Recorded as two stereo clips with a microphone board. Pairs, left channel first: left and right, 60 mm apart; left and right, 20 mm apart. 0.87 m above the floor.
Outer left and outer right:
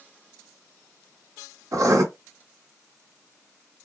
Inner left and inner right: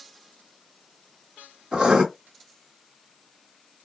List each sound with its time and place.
1.7 s writing: 65° right (ahead or behind), 1.4 m